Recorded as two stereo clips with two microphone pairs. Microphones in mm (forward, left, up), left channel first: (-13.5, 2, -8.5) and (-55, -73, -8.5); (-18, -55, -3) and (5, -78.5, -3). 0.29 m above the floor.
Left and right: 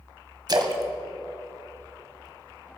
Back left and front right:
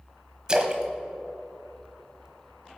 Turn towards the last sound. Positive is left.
turn(degrees=-105)